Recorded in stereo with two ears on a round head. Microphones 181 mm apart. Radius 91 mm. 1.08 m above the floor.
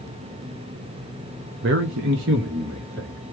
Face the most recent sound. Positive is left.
turn(degrees=-55)  # may be behind; listen again after turning